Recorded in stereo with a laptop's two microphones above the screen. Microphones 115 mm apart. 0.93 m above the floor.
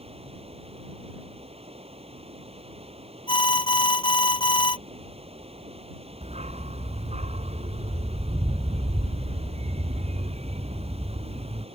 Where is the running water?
60° right (ahead or behind).